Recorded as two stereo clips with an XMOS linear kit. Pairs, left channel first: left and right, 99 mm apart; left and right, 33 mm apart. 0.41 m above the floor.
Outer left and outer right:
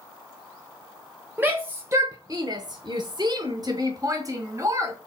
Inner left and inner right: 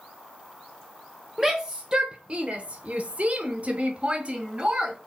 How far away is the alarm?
I don't hear an alarm.